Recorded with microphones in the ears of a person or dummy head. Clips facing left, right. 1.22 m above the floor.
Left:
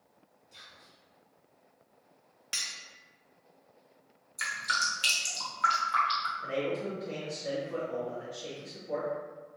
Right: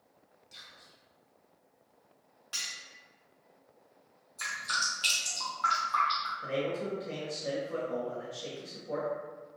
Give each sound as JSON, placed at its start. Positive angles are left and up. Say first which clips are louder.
{"t": 0.5, "sound": "whispering", "louder": "left 2 dB", "side_deg": -30, "distance_m": 1.2}
{"t": 2.5, "sound": "cutlery clinking", "louder": "left 1 dB", "side_deg": 35, "distance_m": 0.6}
{"t": 4.4, "sound": "dripping", "louder": "left 2 dB", "side_deg": 30, "distance_m": 1.1}
{"t": 6.4, "sound": "a man speaking", "louder": "even", "side_deg": -35, "distance_m": 1.1}